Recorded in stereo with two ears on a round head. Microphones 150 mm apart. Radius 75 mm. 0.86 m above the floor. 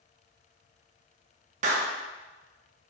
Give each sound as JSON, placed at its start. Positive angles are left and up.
{"t": 1.6, "sound": "a clap", "side_deg": -45, "distance_m": 0.8}